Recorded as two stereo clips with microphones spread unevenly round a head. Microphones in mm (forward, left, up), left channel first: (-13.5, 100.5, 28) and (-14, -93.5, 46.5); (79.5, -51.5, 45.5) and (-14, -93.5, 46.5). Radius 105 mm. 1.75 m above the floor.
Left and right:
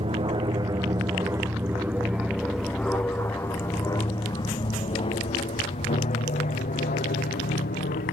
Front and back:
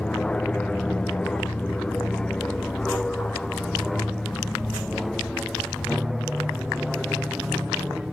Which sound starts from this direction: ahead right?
An aircraft, at 0.0 s.